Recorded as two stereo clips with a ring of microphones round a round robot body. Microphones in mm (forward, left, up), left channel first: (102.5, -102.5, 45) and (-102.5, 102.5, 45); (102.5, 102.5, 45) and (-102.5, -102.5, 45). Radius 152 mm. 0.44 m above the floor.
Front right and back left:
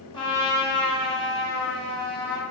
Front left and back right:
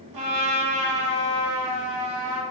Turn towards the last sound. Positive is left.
turn(degrees=-120)